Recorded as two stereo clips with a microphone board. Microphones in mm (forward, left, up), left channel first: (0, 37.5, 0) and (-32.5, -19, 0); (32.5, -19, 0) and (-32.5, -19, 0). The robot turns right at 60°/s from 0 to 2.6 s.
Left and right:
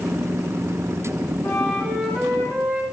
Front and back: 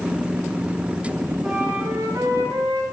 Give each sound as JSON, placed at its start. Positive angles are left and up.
{"t": 1.4, "sound": "a flute", "azimuth_deg": 110, "distance_m": 4.5}